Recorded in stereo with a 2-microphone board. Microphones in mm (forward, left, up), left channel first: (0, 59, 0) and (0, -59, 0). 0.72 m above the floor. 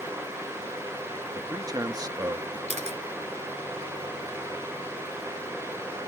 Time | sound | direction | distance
1.4 | a man speaking | 35° right (ahead or behind) | ?
2.7 | a camera shutter | 70° right (ahead or behind) | ?